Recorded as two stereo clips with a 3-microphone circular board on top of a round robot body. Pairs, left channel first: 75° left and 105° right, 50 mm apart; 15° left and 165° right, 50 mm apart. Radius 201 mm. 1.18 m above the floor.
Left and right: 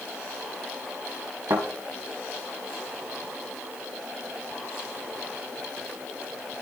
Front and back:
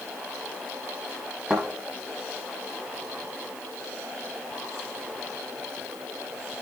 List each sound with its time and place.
1.5 s a thud: 100° right, 2.5 m